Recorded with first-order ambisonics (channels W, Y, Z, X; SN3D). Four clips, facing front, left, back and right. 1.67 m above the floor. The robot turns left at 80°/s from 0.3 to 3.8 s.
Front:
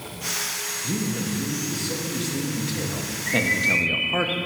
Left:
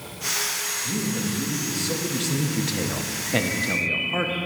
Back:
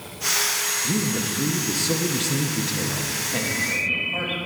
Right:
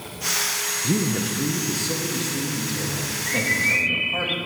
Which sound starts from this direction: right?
A man speaking, at 0.8 s.